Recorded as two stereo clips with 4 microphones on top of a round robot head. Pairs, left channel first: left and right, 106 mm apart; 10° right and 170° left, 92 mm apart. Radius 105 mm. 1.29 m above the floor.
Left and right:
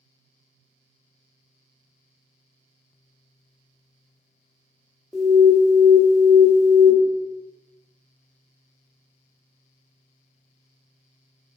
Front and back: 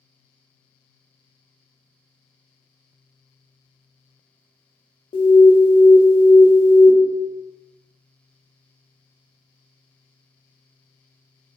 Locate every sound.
5.1 s an alarm: straight ahead, 0.5 m